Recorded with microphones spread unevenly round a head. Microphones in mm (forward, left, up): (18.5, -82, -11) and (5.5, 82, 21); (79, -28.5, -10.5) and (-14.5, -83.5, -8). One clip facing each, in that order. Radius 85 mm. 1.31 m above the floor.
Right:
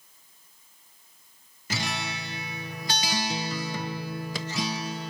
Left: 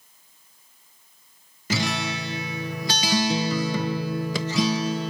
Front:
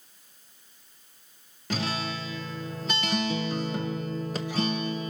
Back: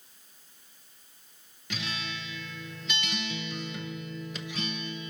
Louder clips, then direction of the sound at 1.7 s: Left 7 dB, front 7 dB; 95° left.